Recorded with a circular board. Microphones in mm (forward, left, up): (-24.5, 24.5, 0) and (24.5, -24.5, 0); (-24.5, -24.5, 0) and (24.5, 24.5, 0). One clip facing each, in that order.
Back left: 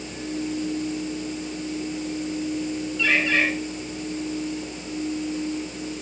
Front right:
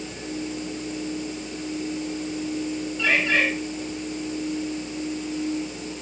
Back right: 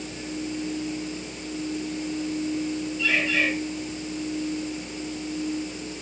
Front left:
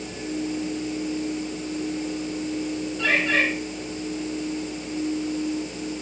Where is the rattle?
No rattle in this recording.